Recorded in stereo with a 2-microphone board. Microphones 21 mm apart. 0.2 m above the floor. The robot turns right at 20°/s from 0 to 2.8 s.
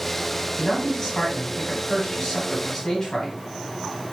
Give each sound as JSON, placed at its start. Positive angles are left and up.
{"t": 0.6, "sound": "a man speaking", "side_deg": 15, "distance_m": 1.3}